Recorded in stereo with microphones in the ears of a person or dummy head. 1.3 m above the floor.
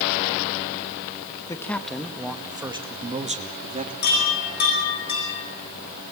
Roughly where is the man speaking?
Centre.